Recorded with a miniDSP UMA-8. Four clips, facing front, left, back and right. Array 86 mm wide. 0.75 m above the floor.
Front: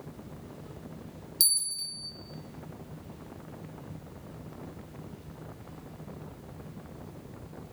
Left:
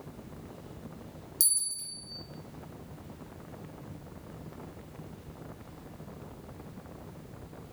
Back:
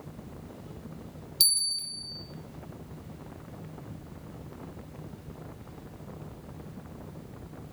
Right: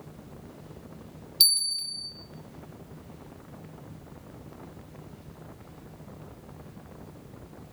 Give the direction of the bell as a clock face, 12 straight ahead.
4 o'clock.